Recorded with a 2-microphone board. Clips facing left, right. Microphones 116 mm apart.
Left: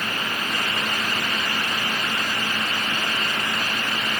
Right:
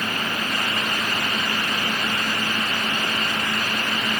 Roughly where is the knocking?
I don't hear knocking.